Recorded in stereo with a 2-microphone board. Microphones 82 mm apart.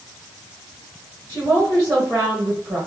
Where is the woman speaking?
35° right (ahead or behind), 1.6 m.